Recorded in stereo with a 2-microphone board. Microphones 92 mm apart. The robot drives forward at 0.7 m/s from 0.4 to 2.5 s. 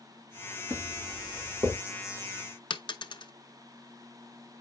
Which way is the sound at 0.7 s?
30° right (ahead or behind).